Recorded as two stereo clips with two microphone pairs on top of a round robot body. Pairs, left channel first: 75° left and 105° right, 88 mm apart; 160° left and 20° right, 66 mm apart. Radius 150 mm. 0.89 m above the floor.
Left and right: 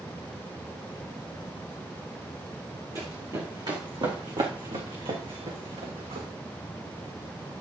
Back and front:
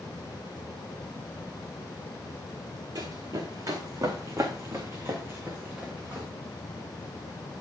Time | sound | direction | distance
3.0 | running footsteps | 50° right | 3.5 m